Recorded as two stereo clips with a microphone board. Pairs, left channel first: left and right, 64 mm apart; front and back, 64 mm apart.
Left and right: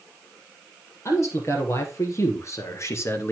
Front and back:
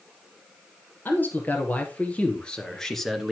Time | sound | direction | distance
1.1 | a man speaking | 55° left | 3 m